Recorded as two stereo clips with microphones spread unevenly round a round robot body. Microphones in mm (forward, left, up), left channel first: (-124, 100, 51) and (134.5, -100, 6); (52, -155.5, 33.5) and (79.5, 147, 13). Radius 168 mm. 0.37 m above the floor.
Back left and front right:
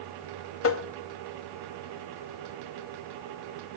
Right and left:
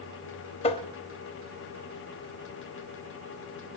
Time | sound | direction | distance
0.6 | tapping | 165° right | 0.6 m